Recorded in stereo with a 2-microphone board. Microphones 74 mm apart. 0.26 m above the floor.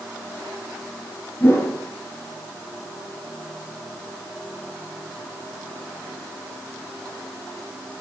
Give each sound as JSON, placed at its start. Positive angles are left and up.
{"t": 1.4, "sound": "a whoosh", "side_deg": 25, "distance_m": 4.0}